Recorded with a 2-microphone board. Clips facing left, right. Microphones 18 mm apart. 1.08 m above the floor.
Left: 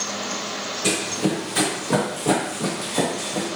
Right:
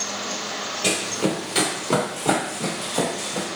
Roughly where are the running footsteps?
Right.